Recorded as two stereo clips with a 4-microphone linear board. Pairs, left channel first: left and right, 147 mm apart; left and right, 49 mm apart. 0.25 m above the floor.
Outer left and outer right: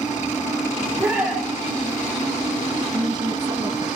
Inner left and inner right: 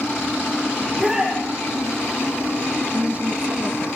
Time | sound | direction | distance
0.8 | a shout | centre (ahead or behind) | 8.5 m
2.9 | a woman speaking | 30° right (ahead or behind) | 2 m